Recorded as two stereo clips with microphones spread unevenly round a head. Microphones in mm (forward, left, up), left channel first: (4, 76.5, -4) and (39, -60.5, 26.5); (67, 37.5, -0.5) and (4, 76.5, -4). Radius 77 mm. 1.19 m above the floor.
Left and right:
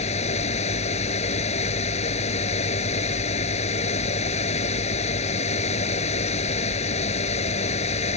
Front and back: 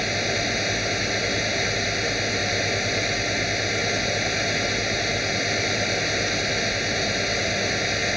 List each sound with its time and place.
0.0 s a fan: 60° left